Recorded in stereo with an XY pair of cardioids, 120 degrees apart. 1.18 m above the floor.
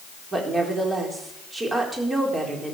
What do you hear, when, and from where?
0.3 s a woman speaking: 25° right, 4 m